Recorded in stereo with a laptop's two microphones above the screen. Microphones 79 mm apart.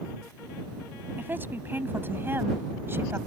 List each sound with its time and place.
1.2 s a woman speaking: 25° right (ahead or behind); by 3.2 s 30° right (ahead or behind)